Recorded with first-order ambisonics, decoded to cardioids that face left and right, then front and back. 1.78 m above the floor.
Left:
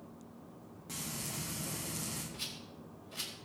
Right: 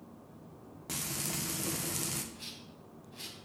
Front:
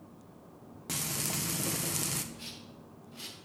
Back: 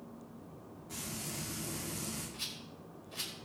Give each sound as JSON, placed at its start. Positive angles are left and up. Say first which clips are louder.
{"t": 0.9, "sound": "frying", "louder": "right 4 dB, front 8 dB", "azimuth_deg": -30, "distance_m": 1.6}
{"t": 2.3, "sound": "a rattle", "louder": "left 3 dB, back 3 dB", "azimuth_deg": 130, "distance_m": 4.5}